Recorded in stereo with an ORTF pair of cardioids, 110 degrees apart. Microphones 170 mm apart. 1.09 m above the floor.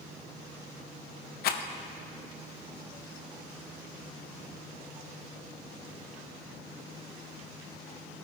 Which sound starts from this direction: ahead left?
A rattle, at 1.4 s.